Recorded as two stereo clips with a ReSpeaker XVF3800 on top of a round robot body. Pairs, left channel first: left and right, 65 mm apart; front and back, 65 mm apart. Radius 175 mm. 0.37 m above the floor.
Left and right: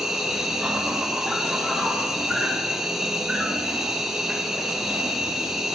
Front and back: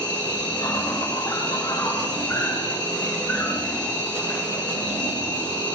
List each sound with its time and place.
0.0 s an insect: 5° right, 2.5 m